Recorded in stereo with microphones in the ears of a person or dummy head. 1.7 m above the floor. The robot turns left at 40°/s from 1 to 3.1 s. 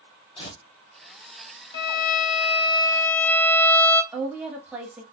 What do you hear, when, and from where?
0.4 s tearing paper: 30° left (ahead or behind), 1.5 m
1.7 s a violin: 65° left, 0.6 m; by 4.0 s 10° left, 0.6 m
4.1 s a woman speaking: 10° right (ahead or behind), 1.6 m